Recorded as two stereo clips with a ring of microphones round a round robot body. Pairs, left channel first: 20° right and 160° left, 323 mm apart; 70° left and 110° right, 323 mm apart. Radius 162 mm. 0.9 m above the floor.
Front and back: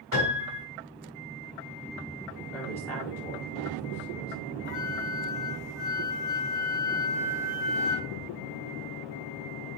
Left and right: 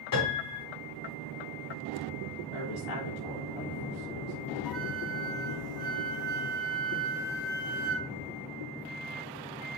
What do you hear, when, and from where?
0.1 s a piano: 30° left, 4 m
2.5 s a woman speaking: 60° left, 4 m
4.7 s a flute: 15° left, 3 m